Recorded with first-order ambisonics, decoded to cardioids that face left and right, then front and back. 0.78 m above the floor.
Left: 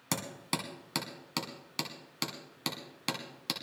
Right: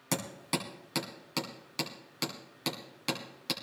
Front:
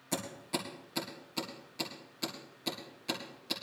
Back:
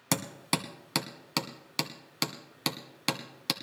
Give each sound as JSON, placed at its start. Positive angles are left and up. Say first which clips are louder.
{"t": 0.1, "sound": "hammering", "louder": "right 1 dB, back 6 dB", "azimuth_deg": 175, "distance_m": 1.6}